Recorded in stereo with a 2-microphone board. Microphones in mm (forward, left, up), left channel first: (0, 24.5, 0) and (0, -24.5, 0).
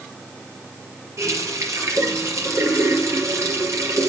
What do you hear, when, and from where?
1.2 s a running tap: 75° right (ahead or behind), 3.5 m